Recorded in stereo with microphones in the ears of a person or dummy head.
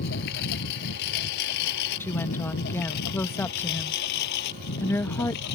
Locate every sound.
0.0 s a lawn mower: 60° left (ahead or behind)
2.0 s a woman speaking: 15° left (ahead or behind)